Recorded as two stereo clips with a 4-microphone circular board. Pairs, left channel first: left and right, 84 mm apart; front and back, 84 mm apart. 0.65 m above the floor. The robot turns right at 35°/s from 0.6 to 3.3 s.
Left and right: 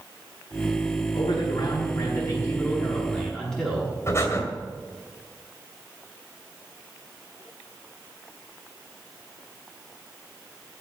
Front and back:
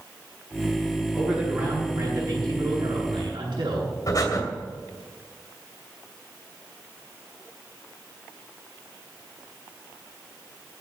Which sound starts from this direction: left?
A man speaking, at 1.1 s.